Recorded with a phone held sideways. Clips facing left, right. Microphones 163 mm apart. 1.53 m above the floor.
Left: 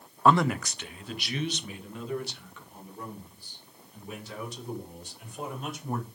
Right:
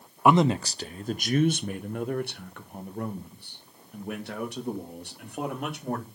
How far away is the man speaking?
About 0.6 m.